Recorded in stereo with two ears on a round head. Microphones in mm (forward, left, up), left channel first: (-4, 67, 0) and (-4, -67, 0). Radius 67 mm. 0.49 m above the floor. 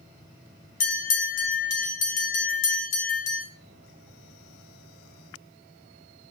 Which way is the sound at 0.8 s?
55° left (ahead or behind).